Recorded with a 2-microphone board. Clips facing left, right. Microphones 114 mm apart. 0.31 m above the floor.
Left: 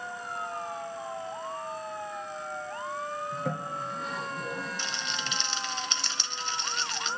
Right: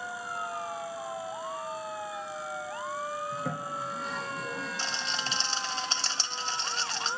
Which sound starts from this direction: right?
A rattle, at 4.8 s.